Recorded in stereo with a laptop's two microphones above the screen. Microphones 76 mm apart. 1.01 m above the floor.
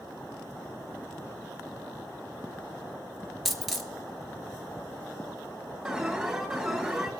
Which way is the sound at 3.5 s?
Centre (ahead or behind).